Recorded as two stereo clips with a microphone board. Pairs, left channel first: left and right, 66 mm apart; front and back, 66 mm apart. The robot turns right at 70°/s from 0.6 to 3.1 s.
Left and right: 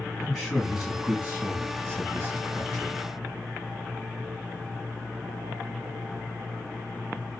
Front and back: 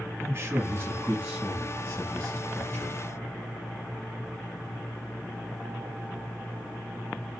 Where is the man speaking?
160° right, 1.4 m; by 3.0 s 5° left, 1.4 m.